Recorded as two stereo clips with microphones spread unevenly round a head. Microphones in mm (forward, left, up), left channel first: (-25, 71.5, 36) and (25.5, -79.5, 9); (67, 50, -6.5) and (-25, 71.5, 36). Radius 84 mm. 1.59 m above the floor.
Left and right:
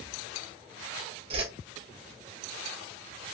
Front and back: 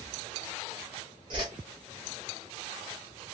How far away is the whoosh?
About 0.9 m.